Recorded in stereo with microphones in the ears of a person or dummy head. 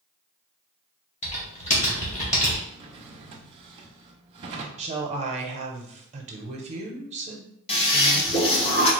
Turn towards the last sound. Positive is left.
turn(degrees=30)  # may be behind; listen again after turning